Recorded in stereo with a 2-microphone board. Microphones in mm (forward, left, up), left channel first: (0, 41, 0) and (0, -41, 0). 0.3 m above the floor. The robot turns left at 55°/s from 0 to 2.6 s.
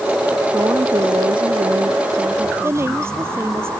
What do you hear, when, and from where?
0.5 s a woman speaking: 35° right; by 3.0 s 145° right
2.6 s a woman speaking: 30° right (ahead or behind)